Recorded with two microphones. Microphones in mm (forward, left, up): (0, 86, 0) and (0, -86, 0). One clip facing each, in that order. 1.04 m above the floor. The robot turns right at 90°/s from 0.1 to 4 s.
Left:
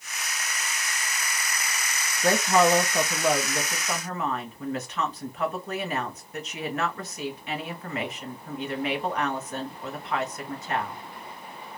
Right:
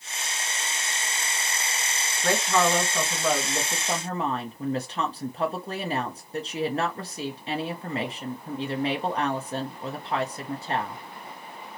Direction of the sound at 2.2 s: 75° left.